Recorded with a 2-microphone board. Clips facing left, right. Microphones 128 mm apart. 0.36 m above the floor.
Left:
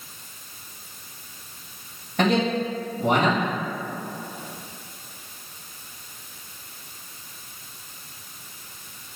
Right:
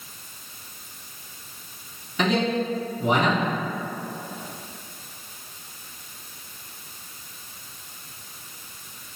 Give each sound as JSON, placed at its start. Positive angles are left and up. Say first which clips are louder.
{"t": 2.2, "sound": "a man speaking", "louder": "left 1 dB", "side_deg": 55, "distance_m": 1.8}